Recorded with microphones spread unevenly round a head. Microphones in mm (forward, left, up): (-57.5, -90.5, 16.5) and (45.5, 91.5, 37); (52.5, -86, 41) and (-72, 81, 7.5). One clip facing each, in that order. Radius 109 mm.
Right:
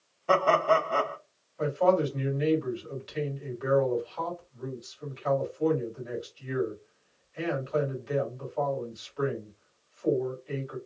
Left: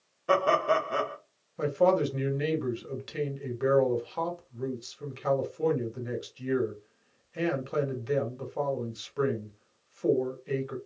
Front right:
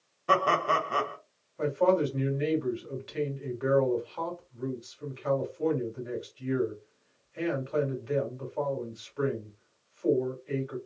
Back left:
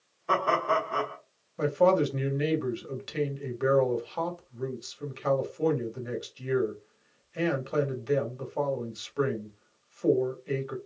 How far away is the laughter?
About 1.3 m.